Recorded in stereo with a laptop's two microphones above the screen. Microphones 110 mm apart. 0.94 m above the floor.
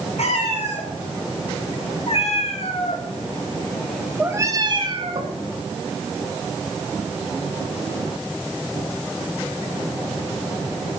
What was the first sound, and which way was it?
A cat meowing, 80° left.